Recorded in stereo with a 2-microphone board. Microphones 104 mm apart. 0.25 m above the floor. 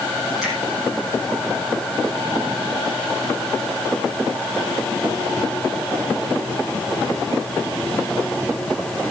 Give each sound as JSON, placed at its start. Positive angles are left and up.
{"t": 0.4, "sound": "a finger snap", "side_deg": -5, "distance_m": 7.5}